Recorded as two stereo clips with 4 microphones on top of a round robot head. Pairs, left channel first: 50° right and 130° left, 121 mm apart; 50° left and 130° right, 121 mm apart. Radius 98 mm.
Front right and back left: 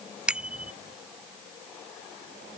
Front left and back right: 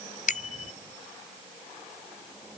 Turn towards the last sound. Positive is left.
turn(degrees=50)